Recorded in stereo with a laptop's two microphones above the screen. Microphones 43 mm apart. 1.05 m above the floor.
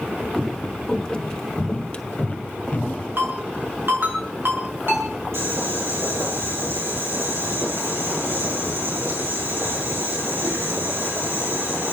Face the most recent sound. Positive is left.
turn(degrees=-70)  # may be behind; listen again after turning